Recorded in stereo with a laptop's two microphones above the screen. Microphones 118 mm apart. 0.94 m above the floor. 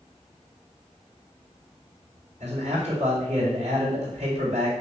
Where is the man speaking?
75° right (ahead or behind), 4 m.